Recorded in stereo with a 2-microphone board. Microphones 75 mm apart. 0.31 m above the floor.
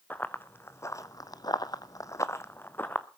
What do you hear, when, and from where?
0.1 s running footsteps: 25° left (ahead or behind), 1.1 m